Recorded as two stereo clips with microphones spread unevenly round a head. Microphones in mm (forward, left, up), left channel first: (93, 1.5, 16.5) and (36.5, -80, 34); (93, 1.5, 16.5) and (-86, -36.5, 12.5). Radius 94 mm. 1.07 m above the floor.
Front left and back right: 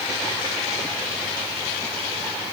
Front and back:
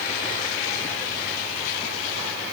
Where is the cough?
I don't hear a cough.